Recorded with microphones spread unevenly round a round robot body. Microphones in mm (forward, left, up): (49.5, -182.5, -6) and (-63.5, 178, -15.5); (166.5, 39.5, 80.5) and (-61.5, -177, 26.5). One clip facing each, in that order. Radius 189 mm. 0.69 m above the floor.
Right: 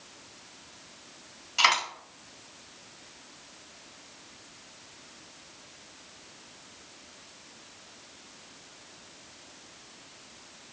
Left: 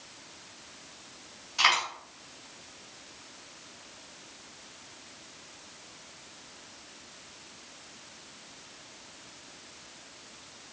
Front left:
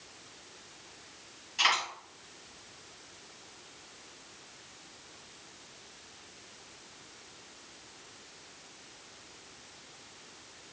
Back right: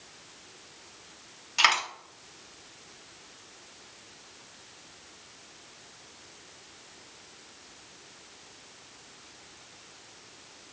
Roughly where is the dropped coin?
Behind right.